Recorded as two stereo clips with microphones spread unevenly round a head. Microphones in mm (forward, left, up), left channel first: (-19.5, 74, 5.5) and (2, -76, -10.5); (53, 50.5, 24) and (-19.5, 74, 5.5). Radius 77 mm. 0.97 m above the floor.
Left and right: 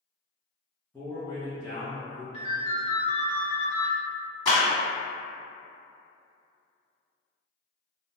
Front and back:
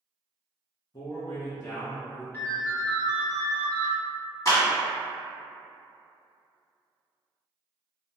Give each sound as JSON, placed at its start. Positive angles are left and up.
{"t": 0.9, "sound": "a man speaking", "azimuth_deg": 0, "distance_m": 0.8}
{"t": 2.3, "sound": "a ringtone", "azimuth_deg": 45, "distance_m": 0.9}
{"t": 4.5, "sound": "a clap", "azimuth_deg": 30, "distance_m": 1.6}